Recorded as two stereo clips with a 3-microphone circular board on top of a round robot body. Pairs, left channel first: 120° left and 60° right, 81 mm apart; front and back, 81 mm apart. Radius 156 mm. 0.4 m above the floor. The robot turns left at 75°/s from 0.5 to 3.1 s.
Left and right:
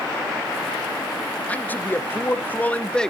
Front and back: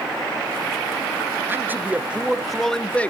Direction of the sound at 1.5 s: 165° left.